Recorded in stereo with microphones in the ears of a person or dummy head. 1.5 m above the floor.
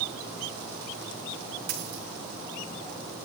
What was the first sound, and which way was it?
A dropped coin, 75° right (ahead or behind).